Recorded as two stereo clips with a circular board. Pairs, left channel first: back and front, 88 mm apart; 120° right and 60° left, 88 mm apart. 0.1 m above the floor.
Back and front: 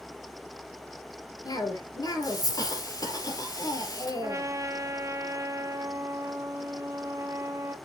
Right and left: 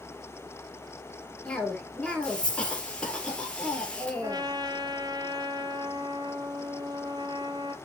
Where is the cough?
165° left, 2.5 m.